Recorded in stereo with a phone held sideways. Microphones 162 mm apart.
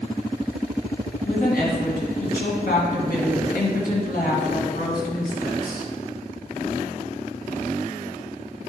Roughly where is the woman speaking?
Left.